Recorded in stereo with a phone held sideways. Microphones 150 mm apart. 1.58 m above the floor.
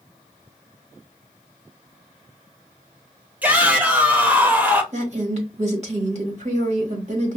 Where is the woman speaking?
50° right (ahead or behind), 1.3 m.